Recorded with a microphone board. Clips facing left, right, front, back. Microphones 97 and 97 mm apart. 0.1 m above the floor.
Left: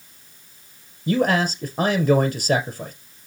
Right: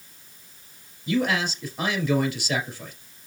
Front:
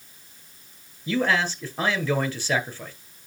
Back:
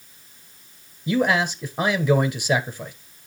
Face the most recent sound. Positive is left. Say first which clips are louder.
# left 4 dB, back 3 dB
turn(degrees=110)